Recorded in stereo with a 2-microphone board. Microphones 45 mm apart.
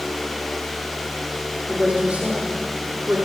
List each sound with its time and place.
1.7 s a woman speaking: 20° right (ahead or behind), 6.5 m; by 3.2 s 35° right (ahead or behind), 6.5 m